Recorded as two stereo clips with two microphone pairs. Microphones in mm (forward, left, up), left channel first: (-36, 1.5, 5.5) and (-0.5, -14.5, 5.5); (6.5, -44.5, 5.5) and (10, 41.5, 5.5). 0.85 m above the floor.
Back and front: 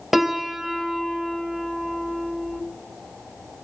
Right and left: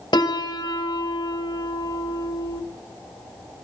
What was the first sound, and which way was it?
A piano, 110° right.